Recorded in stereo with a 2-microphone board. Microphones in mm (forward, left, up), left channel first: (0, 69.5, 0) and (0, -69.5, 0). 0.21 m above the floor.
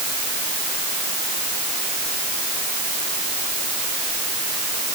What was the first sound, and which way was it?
Only background noise.